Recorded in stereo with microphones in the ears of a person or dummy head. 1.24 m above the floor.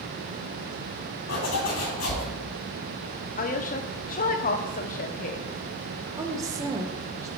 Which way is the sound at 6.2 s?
15° right (ahead or behind).